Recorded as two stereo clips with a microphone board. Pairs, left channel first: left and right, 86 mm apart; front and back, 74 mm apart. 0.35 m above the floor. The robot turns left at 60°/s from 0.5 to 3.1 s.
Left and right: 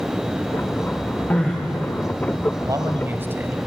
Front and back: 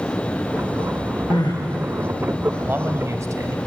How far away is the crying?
About 8 m.